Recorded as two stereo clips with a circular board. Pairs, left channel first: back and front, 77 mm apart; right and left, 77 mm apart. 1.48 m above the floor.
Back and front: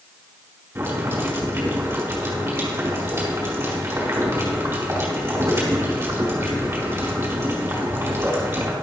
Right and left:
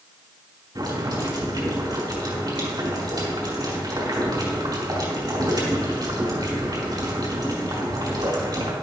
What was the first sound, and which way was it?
Boiling, 65° left.